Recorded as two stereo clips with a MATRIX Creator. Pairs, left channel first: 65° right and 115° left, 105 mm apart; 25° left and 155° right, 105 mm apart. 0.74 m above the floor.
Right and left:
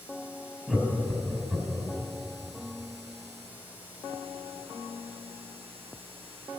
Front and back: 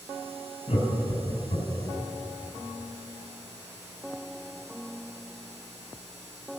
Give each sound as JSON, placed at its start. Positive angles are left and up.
{"t": 0.7, "sound": "laughter", "azimuth_deg": 25, "distance_m": 5.0}